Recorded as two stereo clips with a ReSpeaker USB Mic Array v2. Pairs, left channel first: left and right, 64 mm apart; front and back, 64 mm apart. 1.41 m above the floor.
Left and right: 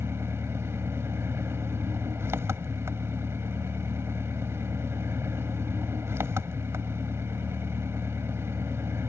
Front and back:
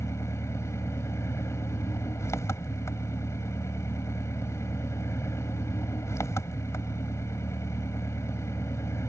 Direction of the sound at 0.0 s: 45° right.